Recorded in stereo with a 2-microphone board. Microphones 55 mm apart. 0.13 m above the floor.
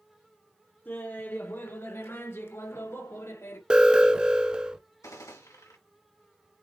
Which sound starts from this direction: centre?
An alarm, at 3.7 s.